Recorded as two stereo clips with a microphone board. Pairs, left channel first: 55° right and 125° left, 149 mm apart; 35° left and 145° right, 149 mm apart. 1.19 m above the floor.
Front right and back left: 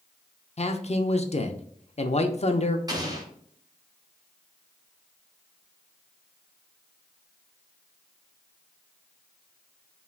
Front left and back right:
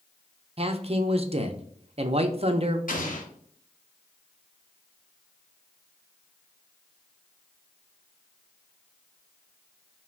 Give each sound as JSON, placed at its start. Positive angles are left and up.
{"t": 0.6, "sound": "a man speaking", "azimuth_deg": -100, "distance_m": 0.5}
{"t": 2.9, "sound": "an explosion", "azimuth_deg": 60, "distance_m": 1.0}